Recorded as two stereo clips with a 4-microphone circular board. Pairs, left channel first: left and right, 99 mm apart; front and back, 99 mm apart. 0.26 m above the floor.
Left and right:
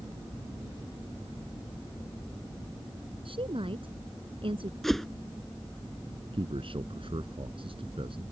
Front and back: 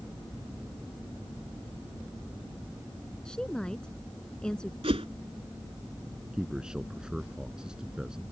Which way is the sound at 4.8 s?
Straight behind.